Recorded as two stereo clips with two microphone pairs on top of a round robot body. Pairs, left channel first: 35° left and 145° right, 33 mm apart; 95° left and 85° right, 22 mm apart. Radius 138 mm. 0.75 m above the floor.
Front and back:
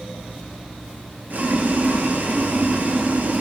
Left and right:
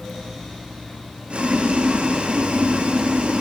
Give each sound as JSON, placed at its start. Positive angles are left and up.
{"t": 1.3, "sound": "boiling", "azimuth_deg": -110, "distance_m": 1.1}